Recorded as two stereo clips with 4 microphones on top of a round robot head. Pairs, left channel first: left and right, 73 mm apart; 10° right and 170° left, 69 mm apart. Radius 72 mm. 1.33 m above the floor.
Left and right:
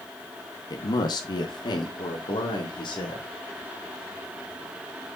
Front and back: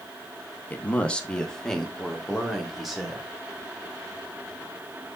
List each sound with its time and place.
0.7 s a man speaking: 55° left, 1.4 m; by 3.2 s 85° left, 3 m